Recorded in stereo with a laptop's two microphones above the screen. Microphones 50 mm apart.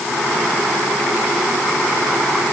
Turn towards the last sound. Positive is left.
No sound to turn to.